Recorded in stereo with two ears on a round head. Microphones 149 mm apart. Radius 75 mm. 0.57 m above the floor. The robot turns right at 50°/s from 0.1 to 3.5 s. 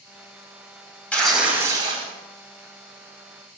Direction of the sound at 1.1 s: 170° left.